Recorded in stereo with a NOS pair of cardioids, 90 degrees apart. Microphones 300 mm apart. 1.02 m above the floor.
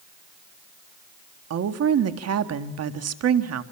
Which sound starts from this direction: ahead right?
A woman speaking, at 1.5 s.